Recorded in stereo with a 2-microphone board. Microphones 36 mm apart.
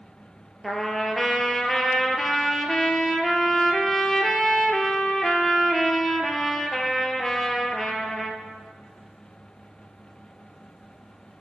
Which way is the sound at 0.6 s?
10° left (ahead or behind).